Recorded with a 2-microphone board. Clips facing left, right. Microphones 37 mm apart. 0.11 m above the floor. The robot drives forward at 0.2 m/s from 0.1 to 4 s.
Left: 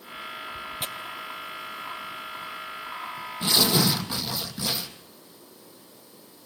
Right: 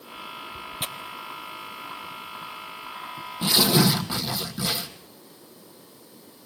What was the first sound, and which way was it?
Tearing paper, 15° right (ahead or behind).